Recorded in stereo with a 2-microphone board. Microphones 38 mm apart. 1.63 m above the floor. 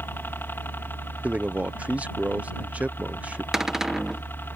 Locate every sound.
0.0 s a helicopter: 65° left (ahead or behind)
1.2 s a man speaking: 40° right (ahead or behind)
3.5 s a cupboard door: 10° right (ahead or behind)